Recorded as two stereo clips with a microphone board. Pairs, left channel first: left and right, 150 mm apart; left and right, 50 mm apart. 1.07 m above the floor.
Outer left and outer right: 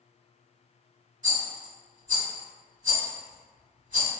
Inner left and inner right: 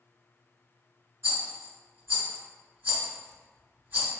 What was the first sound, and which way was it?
A rattle, 50° right (ahead or behind).